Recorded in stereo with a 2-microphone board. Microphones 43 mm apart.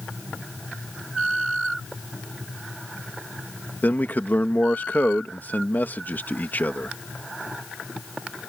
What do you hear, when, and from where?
3.8 s a man speaking: 50° left (ahead or behind)